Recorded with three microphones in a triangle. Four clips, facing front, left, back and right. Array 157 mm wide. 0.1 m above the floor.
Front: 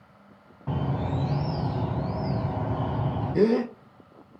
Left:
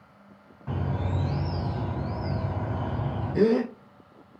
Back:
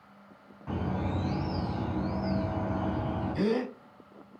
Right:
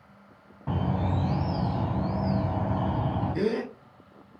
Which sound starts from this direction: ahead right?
A bird, at 0.7 s.